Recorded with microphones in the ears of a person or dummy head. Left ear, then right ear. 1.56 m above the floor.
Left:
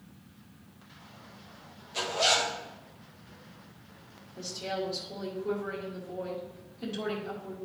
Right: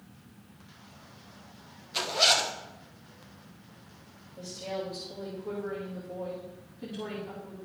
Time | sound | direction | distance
1.9 | a zipper | 35° right (ahead or behind) | 0.9 m
4.4 | a woman speaking | 20° left (ahead or behind) | 1.8 m